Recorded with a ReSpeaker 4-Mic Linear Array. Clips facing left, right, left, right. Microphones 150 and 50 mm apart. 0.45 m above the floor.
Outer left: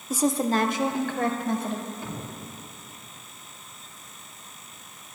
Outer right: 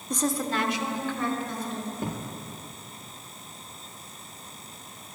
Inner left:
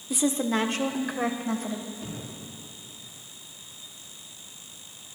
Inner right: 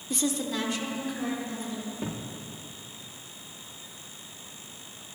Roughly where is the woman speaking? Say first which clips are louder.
Outer left 4 dB, inner left 4 dB; centre.